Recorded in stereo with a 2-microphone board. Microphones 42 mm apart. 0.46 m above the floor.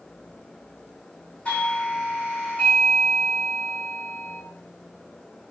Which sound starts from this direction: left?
A doorbell, at 1.4 s.